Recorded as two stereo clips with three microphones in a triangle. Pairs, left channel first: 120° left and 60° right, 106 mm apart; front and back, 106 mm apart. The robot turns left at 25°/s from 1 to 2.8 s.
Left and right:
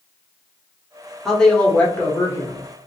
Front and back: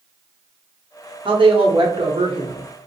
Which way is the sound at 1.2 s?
155° right.